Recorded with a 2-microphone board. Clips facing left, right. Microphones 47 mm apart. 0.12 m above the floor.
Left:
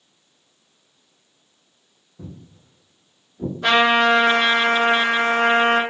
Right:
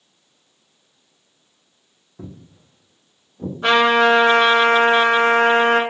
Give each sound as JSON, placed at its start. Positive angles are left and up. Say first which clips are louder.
{"t": 2.2, "sound": "footsteps", "louder": "right 2 dB", "side_deg": -45, "distance_m": 0.6}
{"t": 3.6, "sound": "a trumpet", "louder": "right 2 dB", "side_deg": -25, "distance_m": 1.6}